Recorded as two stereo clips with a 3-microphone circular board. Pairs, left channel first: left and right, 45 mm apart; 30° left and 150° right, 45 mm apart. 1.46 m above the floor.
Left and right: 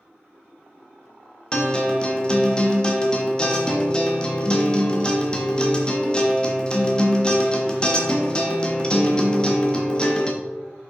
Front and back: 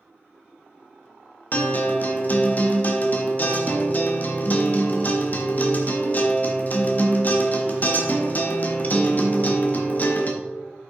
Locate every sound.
1.5 s a guitar: 35° left, 1.0 m